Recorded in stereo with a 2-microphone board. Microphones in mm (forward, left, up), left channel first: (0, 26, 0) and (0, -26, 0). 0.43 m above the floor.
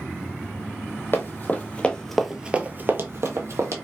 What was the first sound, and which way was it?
Running footsteps, 45° left (ahead or behind).